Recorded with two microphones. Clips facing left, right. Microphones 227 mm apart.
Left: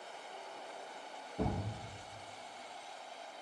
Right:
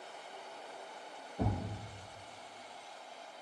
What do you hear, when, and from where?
1.4 s a thud: 30° left (ahead or behind), 1.9 m